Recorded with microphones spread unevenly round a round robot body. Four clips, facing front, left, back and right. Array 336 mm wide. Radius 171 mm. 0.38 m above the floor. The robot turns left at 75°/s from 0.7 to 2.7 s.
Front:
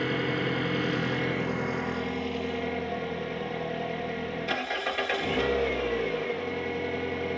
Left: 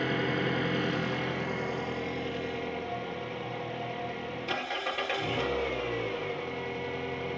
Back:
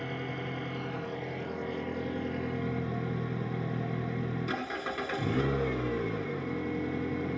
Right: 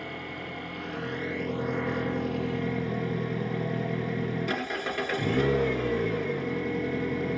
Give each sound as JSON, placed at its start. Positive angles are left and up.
{"t": 0.0, "sound": "an engine running", "azimuth_deg": 40, "distance_m": 1.7}